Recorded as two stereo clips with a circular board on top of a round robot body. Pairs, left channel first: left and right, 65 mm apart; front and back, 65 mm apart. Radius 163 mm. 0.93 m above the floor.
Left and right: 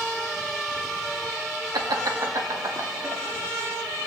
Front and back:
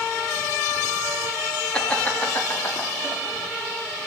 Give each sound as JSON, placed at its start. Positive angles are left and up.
{"t": 1.7, "sound": "laughter", "azimuth_deg": -75, "distance_m": 2.5}